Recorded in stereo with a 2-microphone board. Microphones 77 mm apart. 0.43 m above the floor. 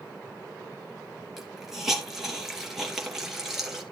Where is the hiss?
5° right (ahead or behind), 2.5 m.